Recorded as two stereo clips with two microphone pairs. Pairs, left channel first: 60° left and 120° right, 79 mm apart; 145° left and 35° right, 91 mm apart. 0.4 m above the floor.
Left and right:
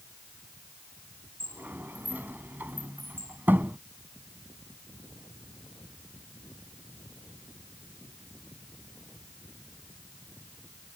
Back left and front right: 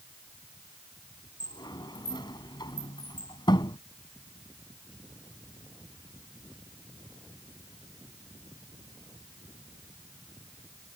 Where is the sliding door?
175° left.